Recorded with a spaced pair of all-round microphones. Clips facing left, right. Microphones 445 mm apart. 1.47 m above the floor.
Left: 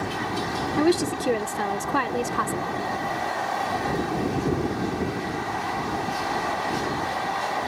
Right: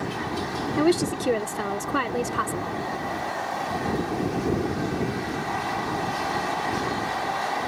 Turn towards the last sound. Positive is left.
turn(degrees=0)  # may be behind; listen again after turning